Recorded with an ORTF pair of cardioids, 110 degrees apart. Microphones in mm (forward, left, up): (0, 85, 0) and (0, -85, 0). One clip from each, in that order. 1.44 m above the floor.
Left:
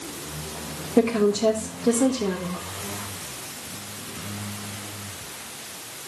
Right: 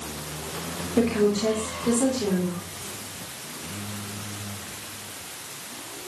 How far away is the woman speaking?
About 4 m.